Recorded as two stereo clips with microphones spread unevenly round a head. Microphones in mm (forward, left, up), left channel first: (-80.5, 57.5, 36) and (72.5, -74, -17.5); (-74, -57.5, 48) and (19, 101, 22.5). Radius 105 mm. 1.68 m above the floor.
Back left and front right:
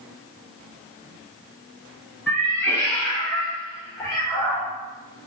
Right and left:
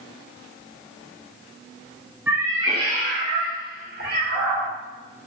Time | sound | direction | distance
2.3 | a cat meowing | 145° left | 1.0 m